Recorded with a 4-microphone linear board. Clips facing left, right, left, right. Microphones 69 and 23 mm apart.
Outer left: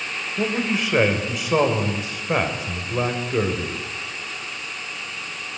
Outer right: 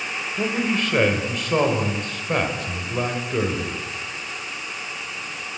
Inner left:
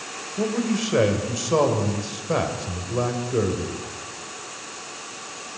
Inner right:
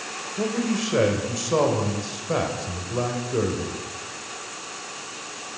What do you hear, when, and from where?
0.4 s a man speaking: 10° left (ahead or behind), 3 m